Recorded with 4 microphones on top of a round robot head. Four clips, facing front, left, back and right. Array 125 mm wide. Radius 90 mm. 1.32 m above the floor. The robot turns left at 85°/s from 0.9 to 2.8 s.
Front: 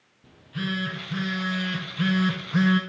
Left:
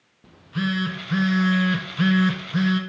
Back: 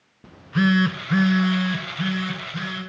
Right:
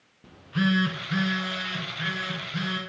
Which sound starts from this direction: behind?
A phone buzzing, at 0.2 s.